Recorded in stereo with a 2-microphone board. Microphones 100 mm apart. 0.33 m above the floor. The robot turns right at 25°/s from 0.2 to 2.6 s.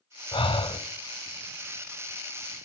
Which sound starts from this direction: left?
Breathing, at 0.3 s.